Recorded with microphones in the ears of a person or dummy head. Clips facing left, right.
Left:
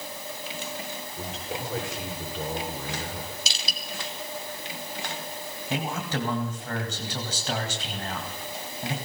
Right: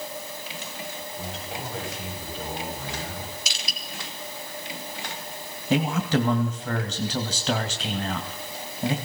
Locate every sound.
1.2 s a man speaking: 65° left (ahead or behind), 6.5 m
3.5 s crushing: 30° left (ahead or behind), 2.5 m
5.7 s a man speaking: 55° right (ahead or behind), 2.5 m